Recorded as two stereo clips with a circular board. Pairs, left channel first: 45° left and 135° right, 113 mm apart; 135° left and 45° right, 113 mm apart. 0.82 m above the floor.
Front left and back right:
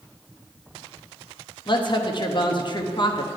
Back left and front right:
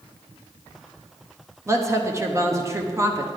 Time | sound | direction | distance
1.7 | a woman speaking | 15° left | 1.2 m